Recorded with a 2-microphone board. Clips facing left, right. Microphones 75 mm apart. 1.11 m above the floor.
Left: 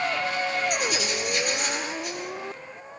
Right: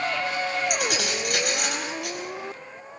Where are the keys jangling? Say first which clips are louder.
Even; 90° right, 6 m.